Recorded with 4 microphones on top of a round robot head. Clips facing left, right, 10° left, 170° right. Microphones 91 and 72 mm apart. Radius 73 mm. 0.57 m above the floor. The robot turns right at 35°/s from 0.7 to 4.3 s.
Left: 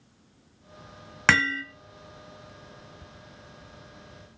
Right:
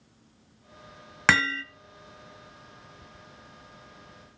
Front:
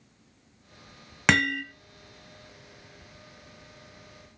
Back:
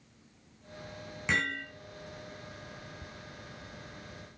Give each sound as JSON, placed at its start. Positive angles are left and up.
{"t": 1.3, "sound": "hammering", "azimuth_deg": -5, "distance_m": 1.3}